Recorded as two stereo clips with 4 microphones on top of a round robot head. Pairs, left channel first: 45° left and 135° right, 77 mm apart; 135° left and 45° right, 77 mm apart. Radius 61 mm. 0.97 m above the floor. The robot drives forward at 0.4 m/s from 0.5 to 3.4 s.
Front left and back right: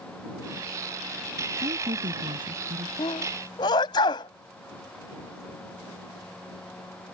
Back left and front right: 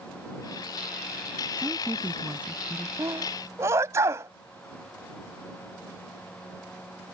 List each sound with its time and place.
1.6 s a woman speaking: 115° right; by 2.9 s 120° right
3.0 s a sneeze: 10° left